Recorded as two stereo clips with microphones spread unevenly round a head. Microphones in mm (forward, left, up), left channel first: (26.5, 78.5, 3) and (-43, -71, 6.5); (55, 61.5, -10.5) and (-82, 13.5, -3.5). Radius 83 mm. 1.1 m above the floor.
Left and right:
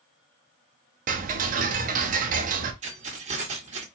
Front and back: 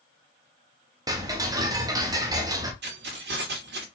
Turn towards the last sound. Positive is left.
turn(degrees=-165)